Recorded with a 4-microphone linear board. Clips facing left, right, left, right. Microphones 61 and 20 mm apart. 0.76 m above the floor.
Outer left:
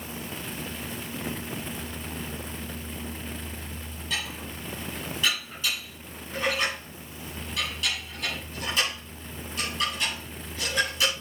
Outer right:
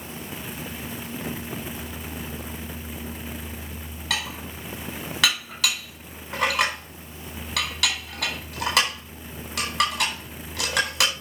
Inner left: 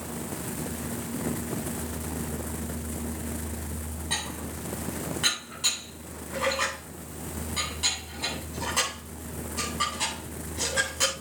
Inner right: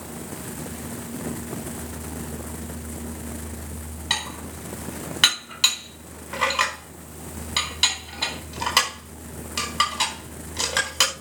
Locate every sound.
4.1 s dishes clattering: 85° right, 4 m